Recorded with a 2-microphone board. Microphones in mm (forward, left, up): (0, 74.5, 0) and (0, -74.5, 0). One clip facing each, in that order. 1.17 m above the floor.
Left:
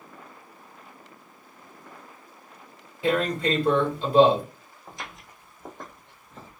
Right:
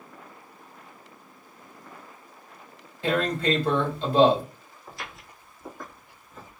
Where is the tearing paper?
10° left (ahead or behind), 1.8 m.